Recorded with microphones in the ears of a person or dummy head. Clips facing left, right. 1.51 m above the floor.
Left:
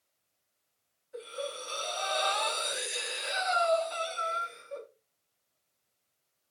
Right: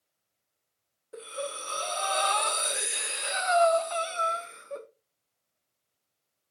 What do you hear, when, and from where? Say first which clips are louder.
1.1 s breathing: right 1 dB; 50° right (ahead or behind), 0.7 m